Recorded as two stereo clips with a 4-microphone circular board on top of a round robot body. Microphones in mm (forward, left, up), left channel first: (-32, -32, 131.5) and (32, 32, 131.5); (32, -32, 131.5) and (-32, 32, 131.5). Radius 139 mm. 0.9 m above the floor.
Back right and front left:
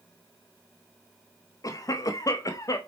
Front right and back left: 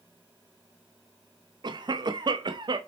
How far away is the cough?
About 0.9 m.